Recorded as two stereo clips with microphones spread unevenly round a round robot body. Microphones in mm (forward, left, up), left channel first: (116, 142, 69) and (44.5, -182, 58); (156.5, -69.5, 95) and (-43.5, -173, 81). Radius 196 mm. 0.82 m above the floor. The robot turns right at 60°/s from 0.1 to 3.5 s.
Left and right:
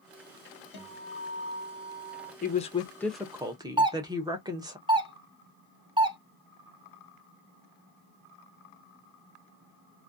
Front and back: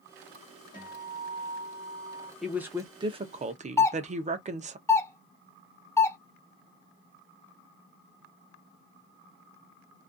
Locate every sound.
0.7 s a guitar: 100° left, 1.5 m; by 2.3 s 170° right, 1.5 m
2.4 s a woman speaking: 125° left, 0.5 m; by 4.8 s 170° right, 0.5 m
3.8 s a doorbell: 45° right, 0.8 m